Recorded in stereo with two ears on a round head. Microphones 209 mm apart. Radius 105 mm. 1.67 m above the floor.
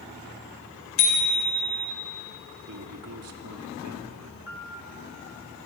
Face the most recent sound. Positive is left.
turn(degrees=50)  # may be behind; listen again after turning